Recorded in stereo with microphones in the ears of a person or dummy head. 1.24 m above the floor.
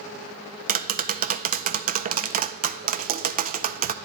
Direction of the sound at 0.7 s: 45° right (ahead or behind).